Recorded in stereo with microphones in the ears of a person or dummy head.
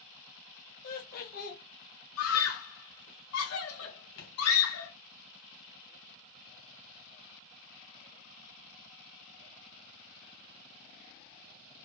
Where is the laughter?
50° left (ahead or behind), 1.1 m.